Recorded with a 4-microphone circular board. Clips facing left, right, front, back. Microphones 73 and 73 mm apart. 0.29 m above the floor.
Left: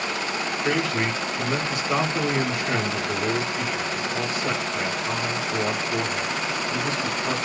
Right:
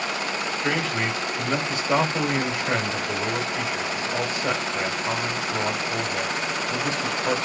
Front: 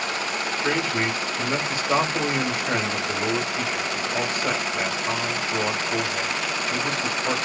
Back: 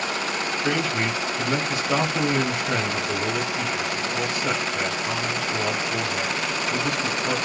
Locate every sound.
0.6 s a man speaking: 50° right, 1.3 m